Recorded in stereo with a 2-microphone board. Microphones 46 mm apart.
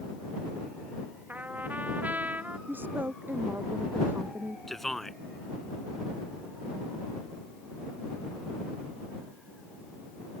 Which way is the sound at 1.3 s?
40° right (ahead or behind).